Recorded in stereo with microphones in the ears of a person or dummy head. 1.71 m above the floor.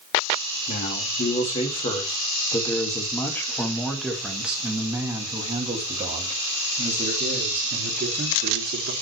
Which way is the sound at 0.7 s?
50° left (ahead or behind).